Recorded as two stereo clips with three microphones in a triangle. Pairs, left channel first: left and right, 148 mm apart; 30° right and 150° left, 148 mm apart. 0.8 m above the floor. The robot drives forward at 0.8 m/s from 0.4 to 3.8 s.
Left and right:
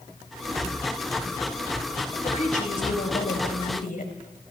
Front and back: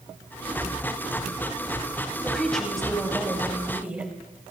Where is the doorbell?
No doorbell in this recording.